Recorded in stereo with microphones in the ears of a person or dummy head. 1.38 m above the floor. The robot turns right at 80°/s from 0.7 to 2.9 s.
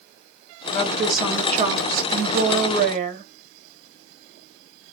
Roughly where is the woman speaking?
Behind left.